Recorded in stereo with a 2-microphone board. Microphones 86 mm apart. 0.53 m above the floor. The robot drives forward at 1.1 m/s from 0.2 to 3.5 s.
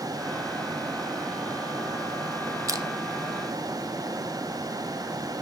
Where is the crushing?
45° right (ahead or behind), 0.7 m; by 2.9 s 55° right (ahead or behind), 0.6 m.